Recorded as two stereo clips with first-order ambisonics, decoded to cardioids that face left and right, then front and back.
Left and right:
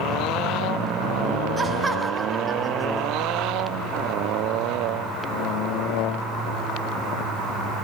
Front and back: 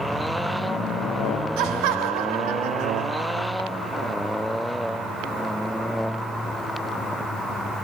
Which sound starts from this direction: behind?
Laughter, at 1.6 s.